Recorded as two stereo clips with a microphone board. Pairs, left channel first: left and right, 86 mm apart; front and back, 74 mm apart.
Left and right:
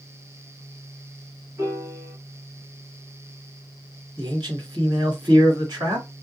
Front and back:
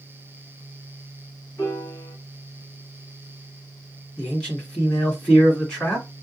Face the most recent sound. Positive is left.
turn(degrees=-75)